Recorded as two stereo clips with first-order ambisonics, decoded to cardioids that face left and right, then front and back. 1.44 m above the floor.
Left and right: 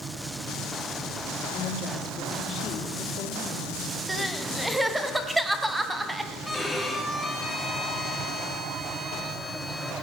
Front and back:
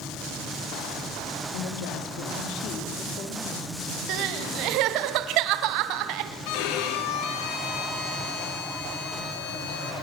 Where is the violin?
Straight ahead, 4.5 m.